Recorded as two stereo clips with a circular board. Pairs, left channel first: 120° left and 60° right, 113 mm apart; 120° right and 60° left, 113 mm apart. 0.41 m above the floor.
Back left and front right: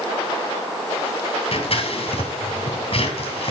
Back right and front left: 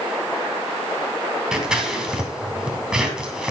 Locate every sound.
1.5 s scissors: 140° left, 2 m